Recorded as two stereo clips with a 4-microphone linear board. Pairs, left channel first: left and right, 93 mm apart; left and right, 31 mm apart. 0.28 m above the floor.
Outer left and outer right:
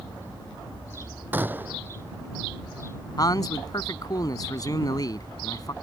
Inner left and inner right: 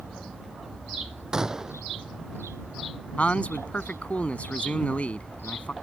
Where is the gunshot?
20° right (ahead or behind).